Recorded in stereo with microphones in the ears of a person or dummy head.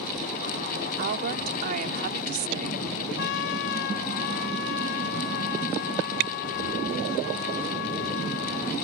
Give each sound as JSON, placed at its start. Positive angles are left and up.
{"t": 1.0, "sound": "a woman speaking", "side_deg": -50}
{"t": 3.2, "sound": "a trumpet", "side_deg": 60}